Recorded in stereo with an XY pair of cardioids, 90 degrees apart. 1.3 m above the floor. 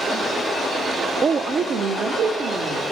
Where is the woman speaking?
55° right, 0.7 m; by 2.8 s 60° right, 2 m.